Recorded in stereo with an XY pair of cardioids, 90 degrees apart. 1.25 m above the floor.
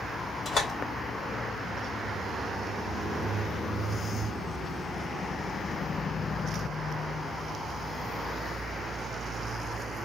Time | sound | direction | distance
0.5 | a door slam | 65° left | 2.5 m